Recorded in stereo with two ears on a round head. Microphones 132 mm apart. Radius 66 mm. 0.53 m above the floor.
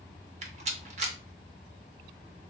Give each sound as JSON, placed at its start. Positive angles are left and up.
{"t": 0.4, "sound": "a rattle", "side_deg": -45, "distance_m": 0.6}